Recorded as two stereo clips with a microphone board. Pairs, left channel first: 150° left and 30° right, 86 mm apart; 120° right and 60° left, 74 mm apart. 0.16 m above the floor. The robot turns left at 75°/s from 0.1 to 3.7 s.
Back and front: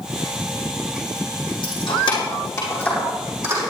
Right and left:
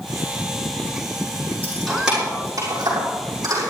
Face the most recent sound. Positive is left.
turn(degrees=20)